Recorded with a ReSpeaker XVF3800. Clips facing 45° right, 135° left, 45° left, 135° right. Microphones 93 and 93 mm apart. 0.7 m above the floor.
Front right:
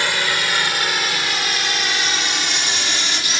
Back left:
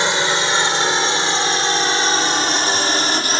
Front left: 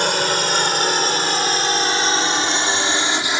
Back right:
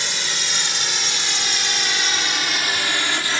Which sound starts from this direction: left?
A drone, at 0.0 s.